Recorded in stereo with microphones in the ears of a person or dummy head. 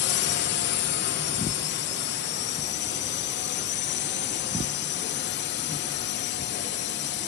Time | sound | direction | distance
0.0 | a drone | 60° left (ahead or behind) | ?